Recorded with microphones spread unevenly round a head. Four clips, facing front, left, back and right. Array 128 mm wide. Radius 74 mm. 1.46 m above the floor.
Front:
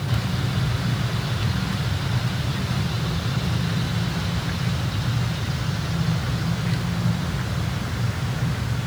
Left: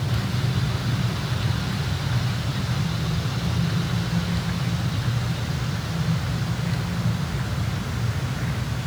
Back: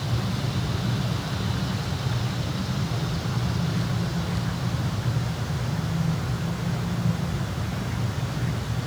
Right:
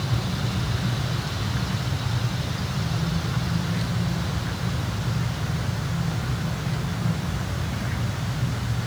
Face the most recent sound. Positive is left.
No sound to turn to.